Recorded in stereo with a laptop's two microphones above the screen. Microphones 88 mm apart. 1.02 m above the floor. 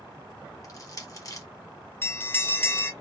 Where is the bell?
25° left (ahead or behind), 1.4 m.